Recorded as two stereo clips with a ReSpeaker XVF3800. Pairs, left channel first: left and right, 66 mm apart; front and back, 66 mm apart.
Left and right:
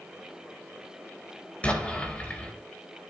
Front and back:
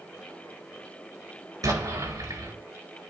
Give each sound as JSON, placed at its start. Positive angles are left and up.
{"t": 1.6, "sound": "an explosion", "azimuth_deg": 160, "distance_m": 4.0}